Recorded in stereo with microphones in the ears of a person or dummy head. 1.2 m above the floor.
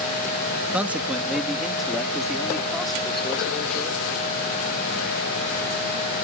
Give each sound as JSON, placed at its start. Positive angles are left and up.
{"t": 0.7, "sound": "a man speaking", "side_deg": -5}